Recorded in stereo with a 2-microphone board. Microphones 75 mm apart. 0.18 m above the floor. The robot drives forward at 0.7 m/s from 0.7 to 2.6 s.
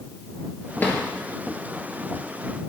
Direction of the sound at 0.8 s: 25° left (ahead or behind).